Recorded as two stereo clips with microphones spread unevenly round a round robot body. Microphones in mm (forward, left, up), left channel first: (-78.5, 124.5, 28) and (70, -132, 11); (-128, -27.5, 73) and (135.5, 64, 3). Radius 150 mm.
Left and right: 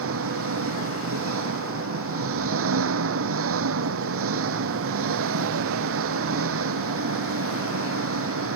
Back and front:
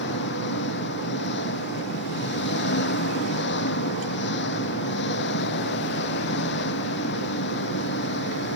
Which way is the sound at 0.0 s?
105° right.